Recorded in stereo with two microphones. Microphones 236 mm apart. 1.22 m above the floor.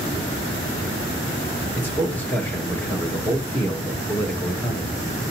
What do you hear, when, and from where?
1.7 s a man speaking: 10° left (ahead or behind), 1.6 m